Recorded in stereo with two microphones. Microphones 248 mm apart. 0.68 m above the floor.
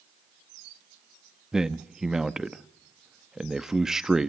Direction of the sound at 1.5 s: Centre (ahead or behind).